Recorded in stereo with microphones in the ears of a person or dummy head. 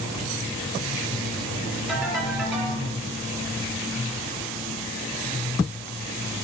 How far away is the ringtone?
About 5 m.